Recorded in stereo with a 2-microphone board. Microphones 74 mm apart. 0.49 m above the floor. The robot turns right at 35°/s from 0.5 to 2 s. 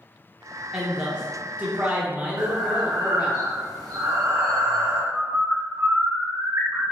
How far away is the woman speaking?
About 1.0 m.